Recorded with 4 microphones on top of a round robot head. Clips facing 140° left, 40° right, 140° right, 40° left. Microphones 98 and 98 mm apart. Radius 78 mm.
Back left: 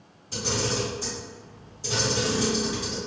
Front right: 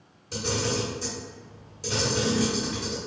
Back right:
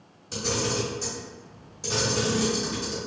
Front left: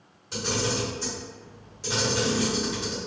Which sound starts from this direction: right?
A camera shutter, at 0.3 s.